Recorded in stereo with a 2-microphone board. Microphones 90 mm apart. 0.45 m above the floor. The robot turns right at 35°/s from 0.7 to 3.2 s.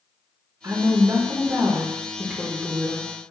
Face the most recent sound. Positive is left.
turn(degrees=5)